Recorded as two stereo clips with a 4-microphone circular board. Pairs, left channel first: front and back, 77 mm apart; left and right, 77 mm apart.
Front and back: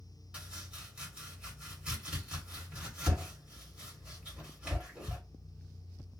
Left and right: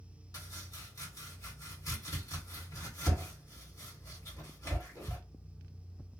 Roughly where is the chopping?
Left.